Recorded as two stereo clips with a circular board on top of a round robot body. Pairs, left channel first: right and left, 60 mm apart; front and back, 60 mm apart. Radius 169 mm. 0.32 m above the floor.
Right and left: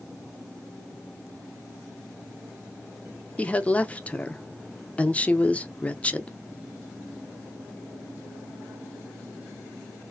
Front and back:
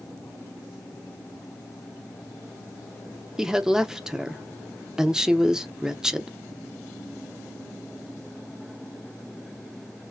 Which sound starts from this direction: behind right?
A woman speaking, at 3.4 s.